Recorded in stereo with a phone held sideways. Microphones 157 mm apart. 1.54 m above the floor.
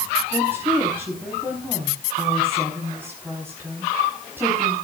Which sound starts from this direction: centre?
A woman speaking, at 0.3 s.